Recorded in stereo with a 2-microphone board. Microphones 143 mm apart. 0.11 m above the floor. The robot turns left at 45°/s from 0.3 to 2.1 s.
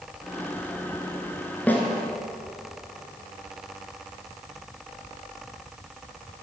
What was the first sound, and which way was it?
A snare drum, 10° left (ahead or behind).